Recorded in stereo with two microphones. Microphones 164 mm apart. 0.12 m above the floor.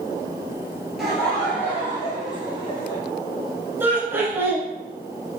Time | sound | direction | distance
1.0 | laughter | centre (ahead or behind) | 1.8 m
3.8 | laughter | 15° right (ahead or behind) | 1.1 m